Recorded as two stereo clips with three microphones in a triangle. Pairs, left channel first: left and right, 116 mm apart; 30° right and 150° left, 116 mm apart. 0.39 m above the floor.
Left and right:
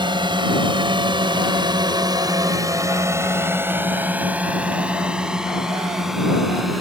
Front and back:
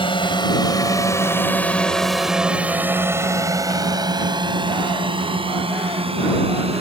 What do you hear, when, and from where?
0.0 s a drone: 55° right; by 6.8 s straight behind